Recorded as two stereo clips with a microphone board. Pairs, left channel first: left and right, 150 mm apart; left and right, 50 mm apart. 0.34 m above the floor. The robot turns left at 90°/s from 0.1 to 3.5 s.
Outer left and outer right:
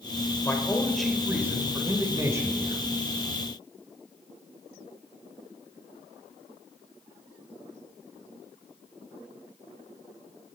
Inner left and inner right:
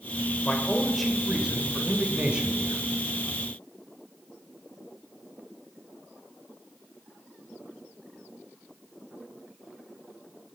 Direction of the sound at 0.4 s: 20° left (ahead or behind).